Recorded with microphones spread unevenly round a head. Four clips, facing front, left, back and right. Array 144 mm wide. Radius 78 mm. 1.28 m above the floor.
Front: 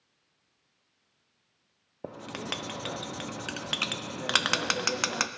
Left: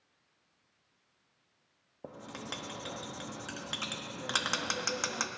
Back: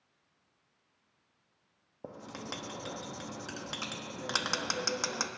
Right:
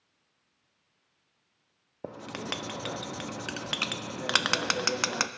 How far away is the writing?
About 0.6 m.